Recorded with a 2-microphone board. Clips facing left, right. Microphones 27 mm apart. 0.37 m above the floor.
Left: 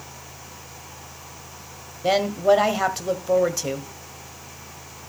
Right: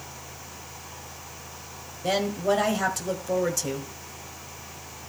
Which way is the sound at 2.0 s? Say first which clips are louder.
Left 6 dB; 25° left (ahead or behind).